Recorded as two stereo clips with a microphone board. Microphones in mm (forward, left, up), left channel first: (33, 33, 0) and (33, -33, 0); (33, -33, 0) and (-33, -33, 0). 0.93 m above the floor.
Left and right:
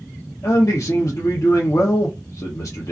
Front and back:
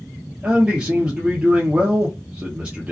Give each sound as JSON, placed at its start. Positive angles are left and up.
{"t": 0.4, "sound": "a man speaking", "azimuth_deg": 110, "distance_m": 0.7}